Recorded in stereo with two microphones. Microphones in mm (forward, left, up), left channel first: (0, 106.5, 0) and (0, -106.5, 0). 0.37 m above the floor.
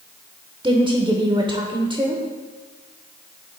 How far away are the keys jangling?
No keys jangling in this recording.